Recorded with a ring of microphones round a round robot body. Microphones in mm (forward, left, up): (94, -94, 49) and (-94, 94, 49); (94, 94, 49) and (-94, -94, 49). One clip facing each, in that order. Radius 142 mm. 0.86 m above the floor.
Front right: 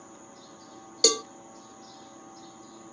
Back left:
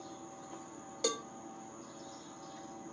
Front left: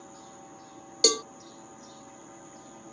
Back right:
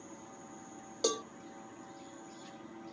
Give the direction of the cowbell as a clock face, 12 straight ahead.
12 o'clock.